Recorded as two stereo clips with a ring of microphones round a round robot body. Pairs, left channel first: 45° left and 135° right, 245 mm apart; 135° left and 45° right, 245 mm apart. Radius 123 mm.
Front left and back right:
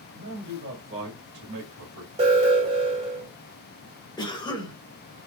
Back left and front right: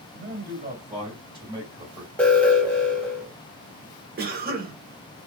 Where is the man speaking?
85° right, 1.8 m; by 2.1 s 130° right, 1.5 m.